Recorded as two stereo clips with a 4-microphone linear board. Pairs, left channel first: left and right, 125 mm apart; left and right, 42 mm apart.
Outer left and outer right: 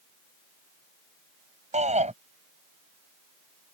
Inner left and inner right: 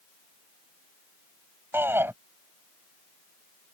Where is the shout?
70° right (ahead or behind).